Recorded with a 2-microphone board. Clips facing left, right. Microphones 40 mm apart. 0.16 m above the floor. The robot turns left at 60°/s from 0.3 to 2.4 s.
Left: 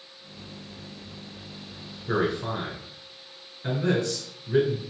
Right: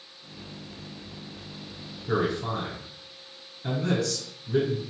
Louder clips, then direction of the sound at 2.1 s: Left 1 dB; 15° left (ahead or behind).